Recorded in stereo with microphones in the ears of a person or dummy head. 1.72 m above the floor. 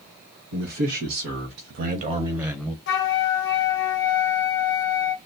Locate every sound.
0.5 s a man speaking: 70° right (ahead or behind), 2 m; by 2.8 s 10° left (ahead or behind), 1.0 m
2.9 s a flute: 60° left (ahead or behind), 0.7 m